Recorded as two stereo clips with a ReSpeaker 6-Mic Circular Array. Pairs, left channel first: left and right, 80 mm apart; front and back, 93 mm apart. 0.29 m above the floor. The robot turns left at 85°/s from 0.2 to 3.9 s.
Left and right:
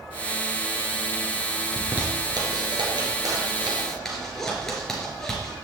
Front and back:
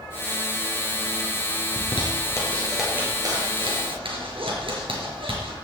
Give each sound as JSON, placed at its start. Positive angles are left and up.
{"t": 1.8, "sound": "a zipper", "azimuth_deg": -5, "distance_m": 3.5}